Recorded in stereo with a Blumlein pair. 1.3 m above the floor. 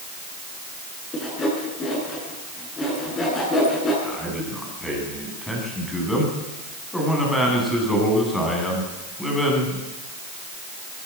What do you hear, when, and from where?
1.1 s sawing: 15° left, 9 m
4.0 s a man speaking: 5° left, 9.5 m